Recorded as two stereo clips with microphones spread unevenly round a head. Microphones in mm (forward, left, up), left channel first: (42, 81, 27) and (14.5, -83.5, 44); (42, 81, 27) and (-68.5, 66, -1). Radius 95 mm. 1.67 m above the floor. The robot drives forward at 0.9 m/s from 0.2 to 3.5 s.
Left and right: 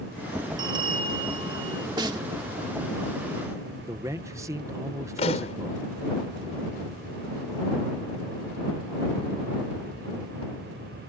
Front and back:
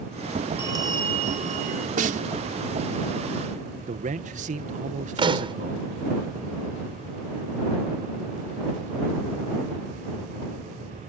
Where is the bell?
90° right; by 1.9 s 160° right.